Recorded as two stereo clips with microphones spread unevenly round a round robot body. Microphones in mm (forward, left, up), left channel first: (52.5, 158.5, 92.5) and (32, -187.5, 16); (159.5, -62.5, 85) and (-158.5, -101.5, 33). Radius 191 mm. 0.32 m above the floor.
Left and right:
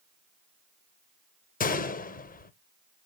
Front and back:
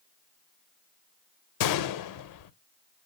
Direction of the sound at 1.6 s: 15° left.